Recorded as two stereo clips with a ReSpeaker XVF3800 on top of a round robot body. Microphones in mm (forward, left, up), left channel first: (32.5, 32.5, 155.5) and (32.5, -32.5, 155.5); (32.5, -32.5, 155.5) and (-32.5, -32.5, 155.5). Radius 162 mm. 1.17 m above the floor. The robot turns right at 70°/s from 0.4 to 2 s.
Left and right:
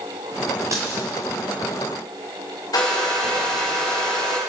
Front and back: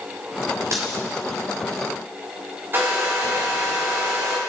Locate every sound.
0.7 s a dropped coin: 145° right, 1.0 m; by 1.0 s 130° right, 1.0 m
2.7 s a hair dryer: 120° left, 2 m